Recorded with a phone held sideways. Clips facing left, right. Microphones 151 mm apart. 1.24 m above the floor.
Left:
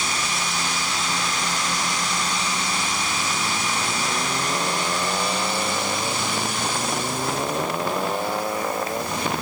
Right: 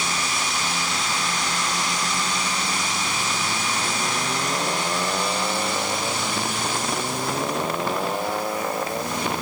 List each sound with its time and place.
Only background noise.